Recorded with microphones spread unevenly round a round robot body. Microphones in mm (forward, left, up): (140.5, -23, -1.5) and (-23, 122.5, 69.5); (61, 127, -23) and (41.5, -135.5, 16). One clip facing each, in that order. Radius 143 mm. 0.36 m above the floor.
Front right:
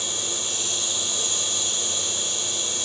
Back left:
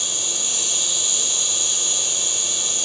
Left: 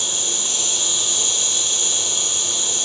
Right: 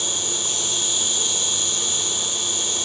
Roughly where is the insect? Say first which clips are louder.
Front right 1 dB, right 1 dB; behind left.